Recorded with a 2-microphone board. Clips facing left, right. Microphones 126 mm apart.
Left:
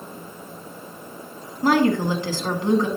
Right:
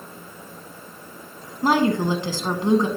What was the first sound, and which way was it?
A woman speaking, 20° right (ahead or behind).